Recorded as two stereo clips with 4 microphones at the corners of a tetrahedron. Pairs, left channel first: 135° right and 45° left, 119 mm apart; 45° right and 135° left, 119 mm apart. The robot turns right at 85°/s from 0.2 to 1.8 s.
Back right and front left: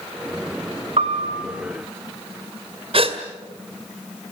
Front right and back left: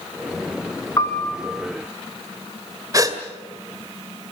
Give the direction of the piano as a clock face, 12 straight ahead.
11 o'clock.